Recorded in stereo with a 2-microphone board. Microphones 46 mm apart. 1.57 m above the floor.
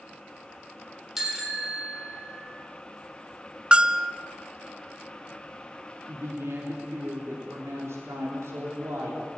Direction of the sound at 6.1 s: 80° right.